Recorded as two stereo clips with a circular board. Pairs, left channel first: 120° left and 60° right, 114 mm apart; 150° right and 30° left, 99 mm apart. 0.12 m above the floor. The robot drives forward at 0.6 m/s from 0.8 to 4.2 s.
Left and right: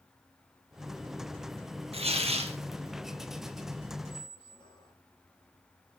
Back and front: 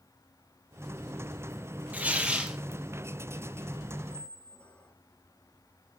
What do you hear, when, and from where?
1.9 s tearing paper: 45° right, 2 m; by 2.6 s 55° right, 1.9 m
4.1 s a squeak: 135° left, 1.0 m; by 5.0 s 140° left, 1.0 m